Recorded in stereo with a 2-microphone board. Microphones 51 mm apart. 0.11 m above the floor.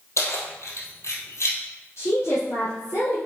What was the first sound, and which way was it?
Keys jangling, 70° left (ahead or behind).